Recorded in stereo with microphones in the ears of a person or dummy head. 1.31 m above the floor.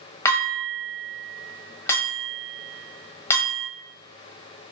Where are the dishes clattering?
15° left (ahead or behind), 1.1 m.